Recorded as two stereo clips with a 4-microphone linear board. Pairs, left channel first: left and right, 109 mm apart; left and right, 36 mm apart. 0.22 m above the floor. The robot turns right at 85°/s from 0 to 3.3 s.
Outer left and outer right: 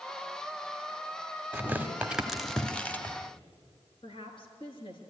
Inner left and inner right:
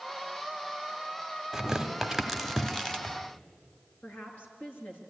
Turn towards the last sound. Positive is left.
turn(degrees=55)  # may be behind; listen again after turning